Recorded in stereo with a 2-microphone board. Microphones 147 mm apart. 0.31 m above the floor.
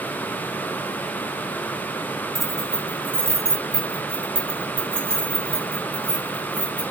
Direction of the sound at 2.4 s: Centre (ahead or behind).